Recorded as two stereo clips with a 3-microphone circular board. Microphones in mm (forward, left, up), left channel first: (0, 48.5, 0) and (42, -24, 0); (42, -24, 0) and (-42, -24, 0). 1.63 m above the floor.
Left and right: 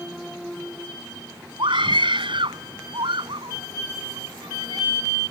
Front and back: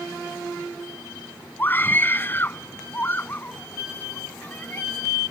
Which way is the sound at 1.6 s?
65° right.